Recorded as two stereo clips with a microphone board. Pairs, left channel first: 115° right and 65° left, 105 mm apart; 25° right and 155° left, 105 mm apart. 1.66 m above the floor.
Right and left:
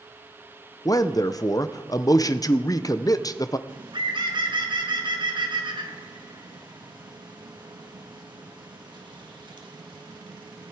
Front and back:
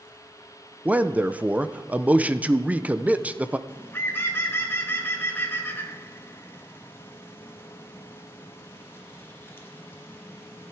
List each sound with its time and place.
0.8 s a man speaking: 135° right, 0.6 m
3.7 s a bird: 40° left, 1.4 m